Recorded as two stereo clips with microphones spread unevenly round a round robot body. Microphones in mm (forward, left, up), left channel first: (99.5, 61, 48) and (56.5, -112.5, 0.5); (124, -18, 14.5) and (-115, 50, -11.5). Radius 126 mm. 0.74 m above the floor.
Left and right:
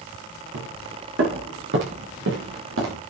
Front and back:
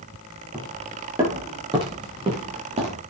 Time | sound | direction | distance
0.5 | footsteps | 120° right | 7.5 m